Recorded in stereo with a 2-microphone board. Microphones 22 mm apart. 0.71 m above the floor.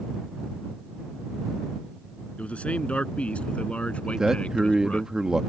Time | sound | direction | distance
2.4 | a man speaking | 85° left | ?
4.0 | a man speaking | 30° right (ahead or behind) | ?